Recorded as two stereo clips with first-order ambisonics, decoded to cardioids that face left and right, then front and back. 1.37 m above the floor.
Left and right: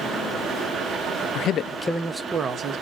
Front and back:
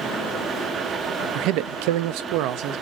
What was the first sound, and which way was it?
A man speaking, 135° left.